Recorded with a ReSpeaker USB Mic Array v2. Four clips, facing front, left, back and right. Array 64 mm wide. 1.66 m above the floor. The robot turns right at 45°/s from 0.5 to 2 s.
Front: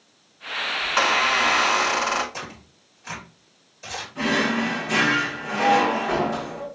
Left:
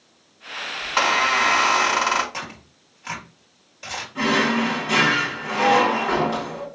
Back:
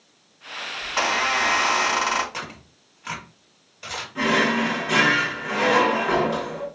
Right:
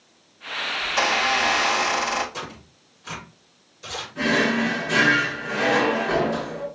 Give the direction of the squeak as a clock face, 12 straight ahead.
10 o'clock.